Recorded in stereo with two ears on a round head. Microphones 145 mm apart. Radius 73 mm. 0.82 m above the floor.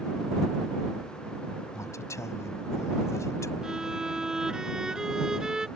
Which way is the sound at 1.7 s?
20° left (ahead or behind).